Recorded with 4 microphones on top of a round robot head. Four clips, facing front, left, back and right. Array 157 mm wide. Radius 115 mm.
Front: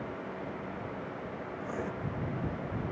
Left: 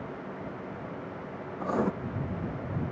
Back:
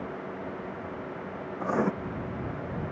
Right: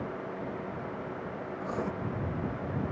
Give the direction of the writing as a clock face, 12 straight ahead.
7 o'clock.